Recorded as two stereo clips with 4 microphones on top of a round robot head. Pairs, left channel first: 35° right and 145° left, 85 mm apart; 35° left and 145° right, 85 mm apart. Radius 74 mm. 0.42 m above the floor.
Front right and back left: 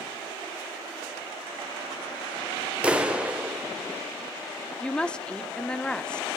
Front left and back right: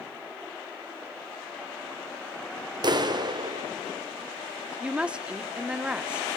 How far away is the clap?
About 1.9 m.